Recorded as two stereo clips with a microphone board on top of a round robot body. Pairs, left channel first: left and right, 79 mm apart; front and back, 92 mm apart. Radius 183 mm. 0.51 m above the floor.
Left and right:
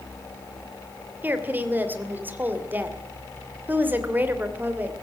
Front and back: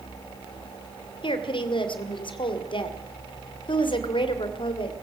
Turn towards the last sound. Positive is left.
turn(degrees=-25)